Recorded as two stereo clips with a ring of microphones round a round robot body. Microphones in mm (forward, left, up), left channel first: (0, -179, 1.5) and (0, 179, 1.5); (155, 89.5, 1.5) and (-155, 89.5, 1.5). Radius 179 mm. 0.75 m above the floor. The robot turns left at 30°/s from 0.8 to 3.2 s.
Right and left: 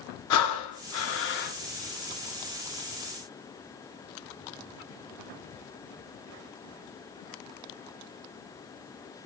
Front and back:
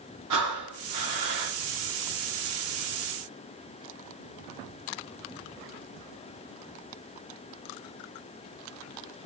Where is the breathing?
135° right, 0.5 m; by 1.6 s 160° right, 0.5 m.